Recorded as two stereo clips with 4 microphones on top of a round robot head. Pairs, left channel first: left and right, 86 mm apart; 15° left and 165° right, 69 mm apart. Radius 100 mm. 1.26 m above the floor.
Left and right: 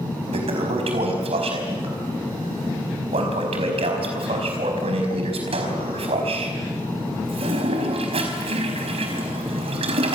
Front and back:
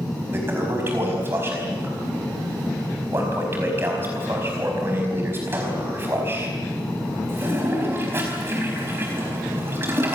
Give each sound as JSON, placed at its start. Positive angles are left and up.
{"t": 0.3, "sound": "a toilet flushing", "azimuth_deg": -105, "distance_m": 4.5}